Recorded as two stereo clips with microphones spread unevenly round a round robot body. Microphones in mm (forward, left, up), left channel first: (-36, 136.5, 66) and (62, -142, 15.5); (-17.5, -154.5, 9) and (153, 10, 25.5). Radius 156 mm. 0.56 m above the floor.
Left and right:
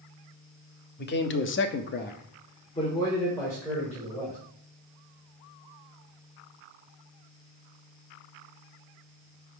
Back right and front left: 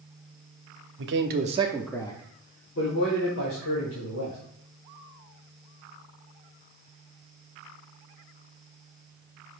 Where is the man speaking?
50° left, 0.9 m; by 4.4 s 165° right, 2.5 m.